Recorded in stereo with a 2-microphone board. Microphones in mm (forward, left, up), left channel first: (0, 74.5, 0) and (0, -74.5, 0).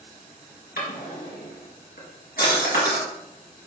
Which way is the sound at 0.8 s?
80° left.